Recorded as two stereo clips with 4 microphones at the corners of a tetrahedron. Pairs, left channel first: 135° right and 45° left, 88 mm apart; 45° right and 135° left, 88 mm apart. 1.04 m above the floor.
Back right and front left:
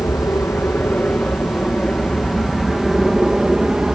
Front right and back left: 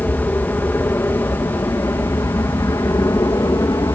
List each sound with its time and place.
0.0 s an aircraft: 100° right; by 4.0 s 35° right